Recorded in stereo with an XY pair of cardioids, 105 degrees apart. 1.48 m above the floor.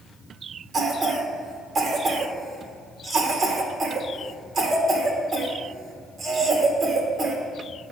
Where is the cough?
45° right, 2 m.